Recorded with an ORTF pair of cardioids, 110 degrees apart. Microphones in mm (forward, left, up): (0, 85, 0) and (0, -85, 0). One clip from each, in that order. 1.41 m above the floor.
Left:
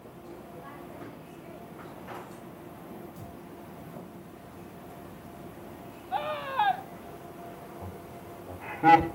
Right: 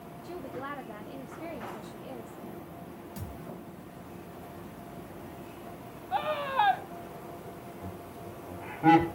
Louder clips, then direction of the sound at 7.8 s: Even; 30° left.